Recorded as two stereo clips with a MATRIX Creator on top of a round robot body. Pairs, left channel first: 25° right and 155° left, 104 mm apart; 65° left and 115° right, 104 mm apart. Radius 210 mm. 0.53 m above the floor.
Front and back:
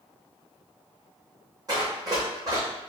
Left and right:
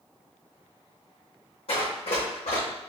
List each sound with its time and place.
1.7 s running footsteps: 100° left, 2.5 m